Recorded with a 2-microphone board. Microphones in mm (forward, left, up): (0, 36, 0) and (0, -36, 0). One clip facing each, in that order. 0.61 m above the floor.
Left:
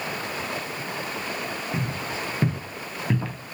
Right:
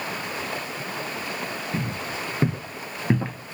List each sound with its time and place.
1.7 s footsteps: 5° right (ahead or behind), 1.3 m; by 3.5 s 30° right (ahead or behind), 0.6 m